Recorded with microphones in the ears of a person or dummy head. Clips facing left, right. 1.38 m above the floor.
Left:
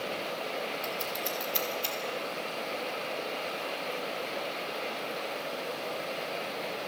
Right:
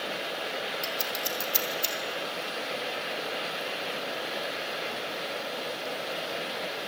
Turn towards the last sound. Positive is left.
turn(degrees=-65)  # may be behind; listen again after turning